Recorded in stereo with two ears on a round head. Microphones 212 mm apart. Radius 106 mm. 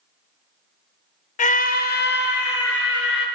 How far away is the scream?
About 0.7 m.